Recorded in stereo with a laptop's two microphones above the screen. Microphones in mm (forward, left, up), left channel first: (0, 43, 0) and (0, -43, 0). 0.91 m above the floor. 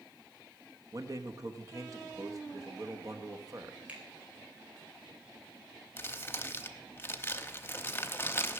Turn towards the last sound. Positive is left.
turn(degrees=25)  # may be behind; listen again after turning